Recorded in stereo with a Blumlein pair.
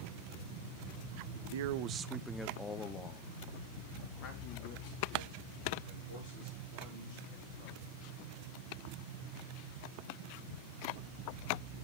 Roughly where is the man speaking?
Ahead right.